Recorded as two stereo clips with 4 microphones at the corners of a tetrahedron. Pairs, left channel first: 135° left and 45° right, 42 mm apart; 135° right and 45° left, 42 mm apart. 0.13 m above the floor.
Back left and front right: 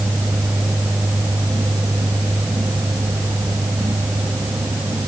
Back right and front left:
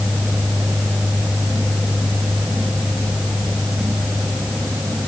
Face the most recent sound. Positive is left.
No sound to turn to.